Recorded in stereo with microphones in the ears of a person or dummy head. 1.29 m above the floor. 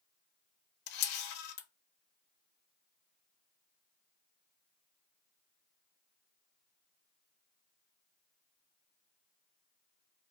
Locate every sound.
0.9 s a camera shutter: 60° left (ahead or behind), 0.7 m